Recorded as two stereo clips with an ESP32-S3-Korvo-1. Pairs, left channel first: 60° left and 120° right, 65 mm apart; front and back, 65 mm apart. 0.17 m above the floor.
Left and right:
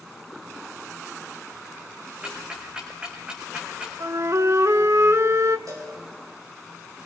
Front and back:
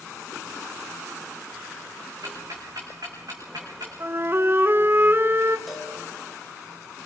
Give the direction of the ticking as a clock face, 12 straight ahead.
6 o'clock.